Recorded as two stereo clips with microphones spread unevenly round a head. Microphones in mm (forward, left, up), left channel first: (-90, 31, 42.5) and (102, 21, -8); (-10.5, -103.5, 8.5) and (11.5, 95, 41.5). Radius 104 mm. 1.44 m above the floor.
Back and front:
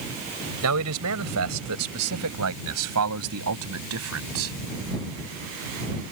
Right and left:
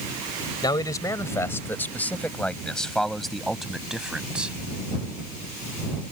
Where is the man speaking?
20° right; by 4.6 s straight ahead.